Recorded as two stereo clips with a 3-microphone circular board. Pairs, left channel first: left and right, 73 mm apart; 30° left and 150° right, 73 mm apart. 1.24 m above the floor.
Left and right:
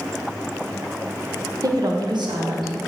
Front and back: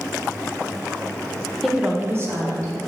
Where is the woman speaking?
60° right, 1.0 m; by 2.8 s 110° right, 2 m.